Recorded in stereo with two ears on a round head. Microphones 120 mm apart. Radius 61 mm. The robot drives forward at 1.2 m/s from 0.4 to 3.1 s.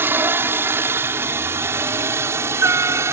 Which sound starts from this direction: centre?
A helicopter, at 0.0 s.